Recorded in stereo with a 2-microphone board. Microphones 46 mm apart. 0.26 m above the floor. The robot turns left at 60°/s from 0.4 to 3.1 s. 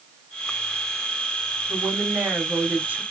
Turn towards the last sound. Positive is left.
turn(degrees=-125)